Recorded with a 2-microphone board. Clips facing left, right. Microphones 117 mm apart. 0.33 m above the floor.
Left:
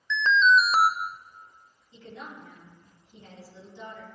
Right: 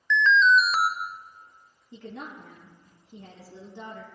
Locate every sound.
0.1 s an alarm: 30° left (ahead or behind), 0.7 m
1.9 s a woman speaking: 65° right (ahead or behind), 4 m